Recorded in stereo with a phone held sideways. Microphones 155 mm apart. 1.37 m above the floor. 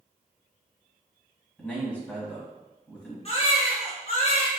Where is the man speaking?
10° left (ahead or behind), 1.2 m.